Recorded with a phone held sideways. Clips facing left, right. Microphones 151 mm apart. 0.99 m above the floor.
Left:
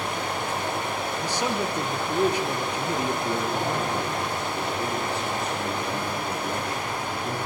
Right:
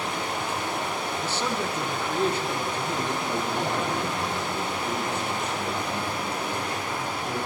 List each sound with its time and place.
0.0 s running water: 60° left (ahead or behind), 2 m
1.2 s a man speaking: 15° left (ahead or behind), 0.5 m
3.2 s a man speaking: 30° left (ahead or behind), 2 m